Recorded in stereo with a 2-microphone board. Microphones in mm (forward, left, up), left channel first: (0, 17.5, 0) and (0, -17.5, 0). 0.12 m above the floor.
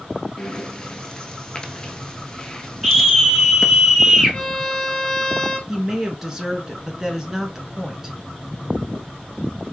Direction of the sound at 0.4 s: 20° left (ahead or behind).